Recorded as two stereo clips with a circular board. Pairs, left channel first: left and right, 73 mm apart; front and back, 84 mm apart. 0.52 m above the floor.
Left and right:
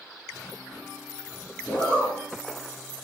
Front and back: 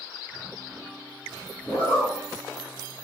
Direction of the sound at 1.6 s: 40° left.